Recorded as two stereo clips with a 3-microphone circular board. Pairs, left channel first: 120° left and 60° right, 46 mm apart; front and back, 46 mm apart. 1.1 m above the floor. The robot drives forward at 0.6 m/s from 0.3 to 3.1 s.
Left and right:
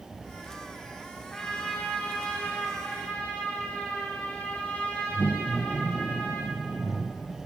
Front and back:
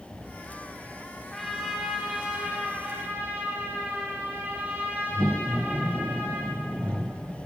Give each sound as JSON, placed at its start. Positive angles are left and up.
{"t": 1.3, "sound": "a trumpet", "azimuth_deg": 65, "distance_m": 0.9}